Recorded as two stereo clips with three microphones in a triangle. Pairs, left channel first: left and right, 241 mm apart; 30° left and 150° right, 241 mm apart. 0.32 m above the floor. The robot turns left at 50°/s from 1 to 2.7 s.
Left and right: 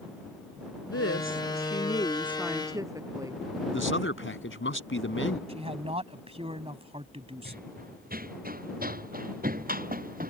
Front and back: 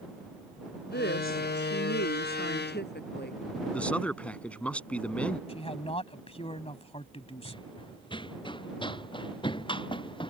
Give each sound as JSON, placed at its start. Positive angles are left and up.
{"t": 0.8, "sound": "a woman speaking", "azimuth_deg": 70}
{"t": 3.7, "sound": "a man speaking", "azimuth_deg": 115}
{"t": 5.5, "sound": "a man speaking", "azimuth_deg": -30}
{"t": 7.5, "sound": "running footsteps", "azimuth_deg": -40}